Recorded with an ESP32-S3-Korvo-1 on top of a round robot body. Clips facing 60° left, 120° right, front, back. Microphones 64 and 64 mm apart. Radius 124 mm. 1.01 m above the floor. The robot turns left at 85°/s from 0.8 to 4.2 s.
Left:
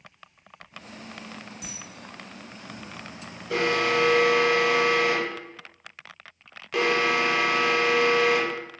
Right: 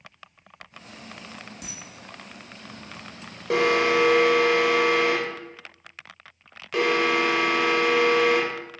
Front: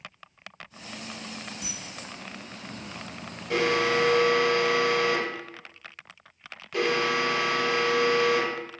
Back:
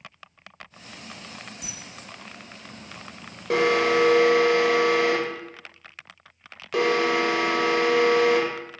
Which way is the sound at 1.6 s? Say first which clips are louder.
Even, front 2 dB; 90° right.